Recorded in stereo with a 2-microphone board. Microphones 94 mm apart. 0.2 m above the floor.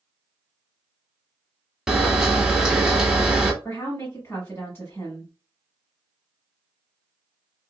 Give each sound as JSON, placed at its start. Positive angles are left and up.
{"t": 1.9, "sound": "a camera shutter", "side_deg": -5, "distance_m": 0.6}
{"t": 3.6, "sound": "a woman speaking", "side_deg": 25, "distance_m": 1.6}